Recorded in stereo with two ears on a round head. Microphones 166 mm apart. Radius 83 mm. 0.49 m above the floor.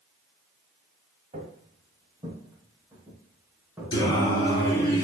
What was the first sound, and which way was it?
Footsteps, 35° right (ahead or behind).